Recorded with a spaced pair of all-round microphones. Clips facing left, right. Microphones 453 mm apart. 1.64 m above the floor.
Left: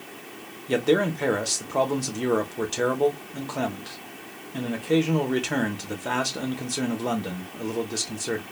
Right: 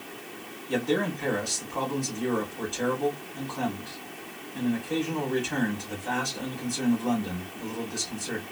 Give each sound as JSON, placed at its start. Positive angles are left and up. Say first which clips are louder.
{"t": 0.7, "sound": "a man speaking", "louder": "left 5 dB", "side_deg": 85, "distance_m": 0.9}